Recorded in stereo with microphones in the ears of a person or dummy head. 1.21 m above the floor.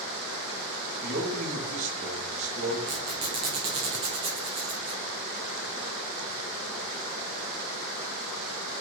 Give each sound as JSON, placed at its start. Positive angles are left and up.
{"t": 1.0, "sound": "a man speaking", "side_deg": -45, "distance_m": 2.0}
{"t": 2.9, "sound": "a squeak", "side_deg": -25, "distance_m": 1.3}